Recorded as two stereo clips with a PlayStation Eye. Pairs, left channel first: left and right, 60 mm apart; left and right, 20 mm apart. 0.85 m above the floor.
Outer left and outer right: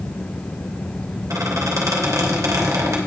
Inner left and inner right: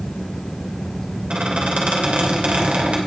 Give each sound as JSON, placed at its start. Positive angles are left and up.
{"t": 1.3, "sound": "a squeak", "side_deg": -80, "distance_m": 2.5}